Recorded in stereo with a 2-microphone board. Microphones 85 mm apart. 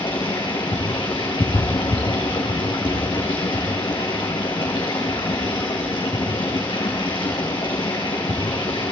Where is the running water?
65° left (ahead or behind), 6 m.